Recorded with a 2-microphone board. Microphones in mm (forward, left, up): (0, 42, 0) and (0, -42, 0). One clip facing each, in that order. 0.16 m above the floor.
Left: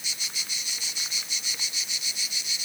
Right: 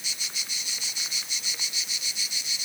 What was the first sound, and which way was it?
Only background noise.